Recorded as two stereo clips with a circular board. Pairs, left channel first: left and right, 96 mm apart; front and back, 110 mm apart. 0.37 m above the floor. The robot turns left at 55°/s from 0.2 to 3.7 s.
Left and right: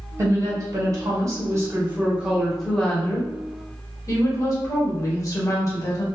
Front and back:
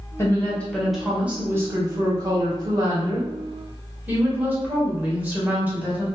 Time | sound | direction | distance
0.2 | a woman speaking | 50° right | 1.0 m